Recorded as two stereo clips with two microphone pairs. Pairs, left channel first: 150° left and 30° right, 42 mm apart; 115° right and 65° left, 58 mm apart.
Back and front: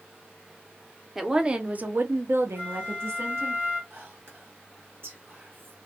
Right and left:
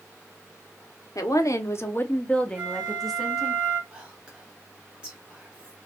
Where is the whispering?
5° right, 0.9 m.